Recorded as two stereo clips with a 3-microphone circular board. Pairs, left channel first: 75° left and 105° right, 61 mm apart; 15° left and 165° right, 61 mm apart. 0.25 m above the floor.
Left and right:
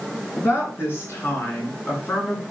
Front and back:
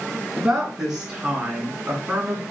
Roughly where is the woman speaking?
Behind left.